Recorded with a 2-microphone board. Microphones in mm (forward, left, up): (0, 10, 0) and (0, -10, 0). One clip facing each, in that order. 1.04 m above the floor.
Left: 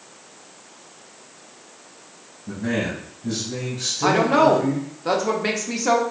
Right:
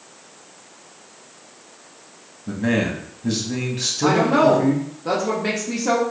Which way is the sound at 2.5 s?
45° right (ahead or behind).